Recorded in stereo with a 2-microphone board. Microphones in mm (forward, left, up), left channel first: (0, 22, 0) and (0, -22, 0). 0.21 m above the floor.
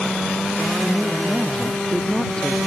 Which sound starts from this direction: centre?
A woman speaking, at 0.8 s.